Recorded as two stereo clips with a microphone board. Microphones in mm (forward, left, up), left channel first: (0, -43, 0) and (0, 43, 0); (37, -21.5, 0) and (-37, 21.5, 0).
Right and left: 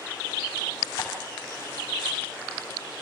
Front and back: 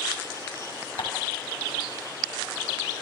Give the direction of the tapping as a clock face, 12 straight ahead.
1 o'clock.